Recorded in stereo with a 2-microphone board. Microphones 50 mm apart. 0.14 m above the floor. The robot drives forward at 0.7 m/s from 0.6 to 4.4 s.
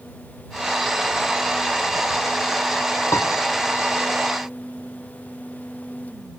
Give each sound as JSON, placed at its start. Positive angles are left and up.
{"t": 3.1, "sound": "a piano", "side_deg": 75, "distance_m": 1.3}